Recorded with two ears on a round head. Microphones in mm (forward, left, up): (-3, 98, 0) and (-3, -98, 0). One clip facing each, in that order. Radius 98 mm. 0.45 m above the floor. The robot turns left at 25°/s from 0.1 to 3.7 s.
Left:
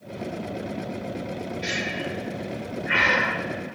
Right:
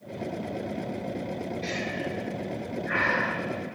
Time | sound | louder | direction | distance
1.6 | breathing | left 1 dB | 15° left (ahead or behind) | 0.7 m